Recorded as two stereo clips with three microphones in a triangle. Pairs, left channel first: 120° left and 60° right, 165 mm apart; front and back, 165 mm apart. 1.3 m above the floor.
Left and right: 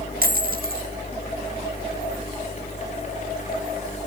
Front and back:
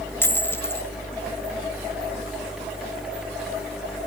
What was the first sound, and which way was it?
A dropped coin, 75° right.